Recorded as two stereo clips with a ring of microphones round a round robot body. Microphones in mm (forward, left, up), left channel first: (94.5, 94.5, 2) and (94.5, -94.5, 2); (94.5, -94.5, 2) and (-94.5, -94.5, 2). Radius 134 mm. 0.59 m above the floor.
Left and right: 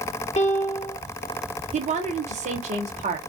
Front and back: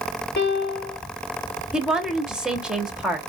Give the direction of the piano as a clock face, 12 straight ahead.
11 o'clock.